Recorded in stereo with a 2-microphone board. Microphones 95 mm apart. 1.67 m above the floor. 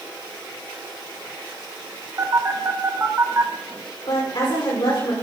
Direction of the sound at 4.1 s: 60° left (ahead or behind).